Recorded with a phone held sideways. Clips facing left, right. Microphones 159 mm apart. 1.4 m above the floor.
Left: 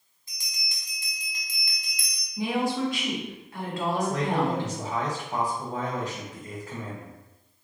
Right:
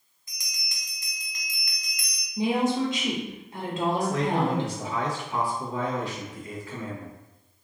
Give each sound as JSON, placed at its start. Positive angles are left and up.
{"t": 0.3, "sound": "a bell", "side_deg": 25, "distance_m": 1.0}
{"t": 2.4, "sound": "a woman speaking", "side_deg": -20, "distance_m": 1.2}
{"t": 4.0, "sound": "a man speaking", "side_deg": 45, "distance_m": 1.4}